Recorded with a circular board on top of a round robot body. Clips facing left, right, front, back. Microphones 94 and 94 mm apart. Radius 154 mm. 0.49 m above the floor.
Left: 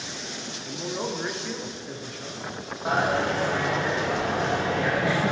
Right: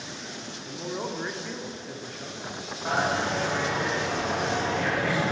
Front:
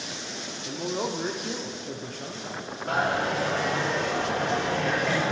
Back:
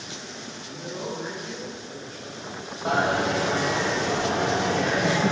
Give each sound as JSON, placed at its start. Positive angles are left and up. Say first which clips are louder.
{"t": 0.7, "sound": "a man speaking", "louder": "left 2 dB, front 4 dB", "azimuth_deg": 0, "distance_m": 1.4}
{"t": 2.9, "sound": "a dropped coin", "louder": "left 2 dB, back 3 dB", "azimuth_deg": 175, "distance_m": 4.5}